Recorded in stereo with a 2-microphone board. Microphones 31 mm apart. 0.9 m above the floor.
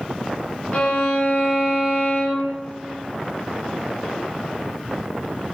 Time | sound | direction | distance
0.7 | a violin | 45° left (ahead or behind) | 0.8 m